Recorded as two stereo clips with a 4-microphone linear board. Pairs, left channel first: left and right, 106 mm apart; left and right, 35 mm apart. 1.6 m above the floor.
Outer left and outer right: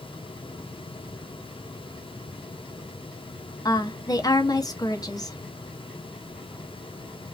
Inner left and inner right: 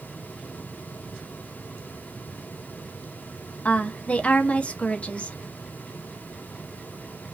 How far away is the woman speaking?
About 0.7 m.